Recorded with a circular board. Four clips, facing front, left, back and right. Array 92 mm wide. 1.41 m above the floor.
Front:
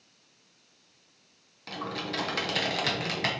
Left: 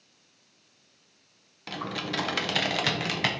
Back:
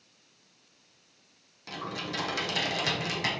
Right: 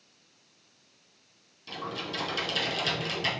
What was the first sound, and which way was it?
Typing on a keyboard, 70° left.